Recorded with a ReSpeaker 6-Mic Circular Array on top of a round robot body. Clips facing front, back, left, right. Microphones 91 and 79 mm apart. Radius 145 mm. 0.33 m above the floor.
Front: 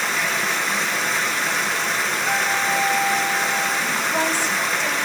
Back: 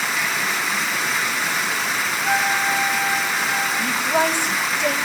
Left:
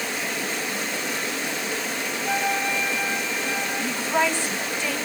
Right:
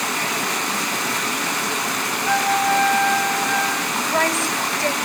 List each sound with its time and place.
0.0 s running water: 90° right, 1.9 m
2.2 s a flute: 140° right, 9.5 m
3.8 s a woman speaking: 165° right, 2.5 m